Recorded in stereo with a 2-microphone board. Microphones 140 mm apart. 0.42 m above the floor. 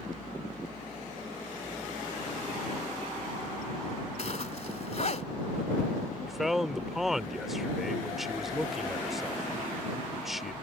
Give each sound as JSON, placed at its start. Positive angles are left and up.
{"t": 4.2, "sound": "a zipper", "side_deg": 50}
{"t": 6.3, "sound": "a man speaking", "side_deg": 0}